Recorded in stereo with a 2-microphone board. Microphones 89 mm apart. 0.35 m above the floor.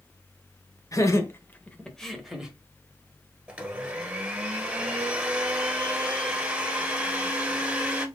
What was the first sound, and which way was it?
Laughter, 40° left (ahead or behind).